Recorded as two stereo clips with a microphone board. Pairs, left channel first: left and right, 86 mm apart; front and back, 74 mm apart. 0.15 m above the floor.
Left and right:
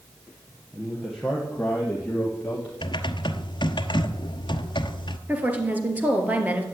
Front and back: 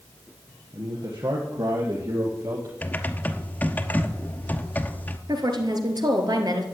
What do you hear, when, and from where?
0.7 s a man speaking: 170° right, 4 m; by 2.7 s 155° left, 4.5 m
2.8 s typing on a keyboard: 65° left, 1.0 m
5.3 s a woman speaking: 160° right, 2.5 m